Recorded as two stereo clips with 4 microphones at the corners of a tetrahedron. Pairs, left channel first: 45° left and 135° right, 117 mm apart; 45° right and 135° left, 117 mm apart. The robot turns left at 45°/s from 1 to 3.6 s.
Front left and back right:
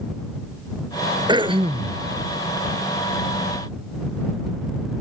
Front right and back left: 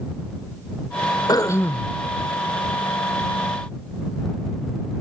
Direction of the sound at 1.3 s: 95° right.